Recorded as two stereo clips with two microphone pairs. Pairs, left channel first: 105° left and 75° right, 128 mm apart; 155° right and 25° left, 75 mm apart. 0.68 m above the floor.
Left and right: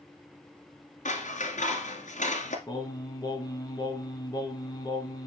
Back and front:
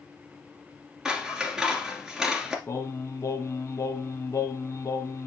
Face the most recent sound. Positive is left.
turn(degrees=160)